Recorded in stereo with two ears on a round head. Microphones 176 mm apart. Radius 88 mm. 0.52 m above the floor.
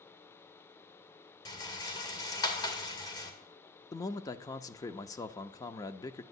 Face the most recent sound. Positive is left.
turn(degrees=20)  # may be behind; listen again after turning